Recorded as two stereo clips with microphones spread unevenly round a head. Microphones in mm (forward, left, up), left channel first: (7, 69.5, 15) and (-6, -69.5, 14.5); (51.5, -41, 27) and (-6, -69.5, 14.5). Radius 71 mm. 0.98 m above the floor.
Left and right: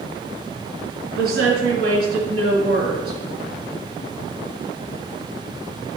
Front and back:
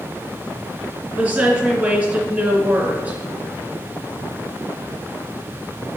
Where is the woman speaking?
95° right, 2.5 m.